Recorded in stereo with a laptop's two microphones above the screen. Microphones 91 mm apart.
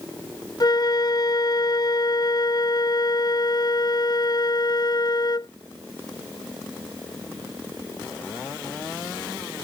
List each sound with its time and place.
0.6 s a flute: 50° left (ahead or behind)